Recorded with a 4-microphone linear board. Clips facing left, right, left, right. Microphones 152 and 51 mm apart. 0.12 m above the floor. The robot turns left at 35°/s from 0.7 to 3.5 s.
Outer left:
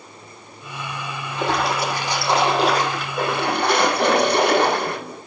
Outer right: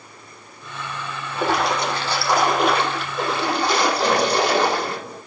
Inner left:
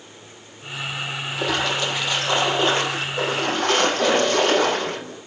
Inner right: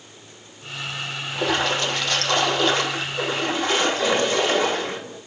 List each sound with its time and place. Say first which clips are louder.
1.3 s a splash: outer right 1 dB, inner right 1 dB; 170° right, 4.5 m; by 5.0 s 115° left, 4.5 m
4.0 s a cough: outer left 2 dB, inner left 2 dB; 65° left (ahead or behind), 5 m